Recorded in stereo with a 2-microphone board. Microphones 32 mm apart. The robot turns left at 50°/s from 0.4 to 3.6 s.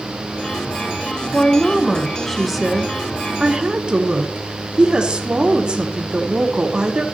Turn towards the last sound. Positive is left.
turn(degrees=-55)